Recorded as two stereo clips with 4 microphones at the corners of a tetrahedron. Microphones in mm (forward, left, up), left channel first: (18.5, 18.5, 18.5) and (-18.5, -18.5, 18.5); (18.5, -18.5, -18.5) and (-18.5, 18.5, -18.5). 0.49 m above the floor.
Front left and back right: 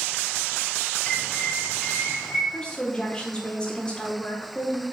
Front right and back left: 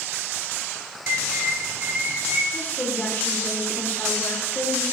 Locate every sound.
1.1 s a bird: 110° left, 1.7 m
2.5 s a woman speaking: 15° right, 1.3 m